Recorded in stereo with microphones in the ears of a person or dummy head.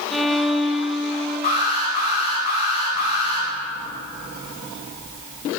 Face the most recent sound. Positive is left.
turn(degrees=40)  # may be behind; listen again after turning